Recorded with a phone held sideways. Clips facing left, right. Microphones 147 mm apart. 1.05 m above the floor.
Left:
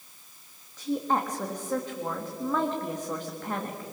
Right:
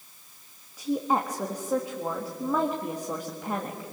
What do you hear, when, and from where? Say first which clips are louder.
0.8 s a woman speaking: right 1 dB; 10° right (ahead or behind), 1.6 m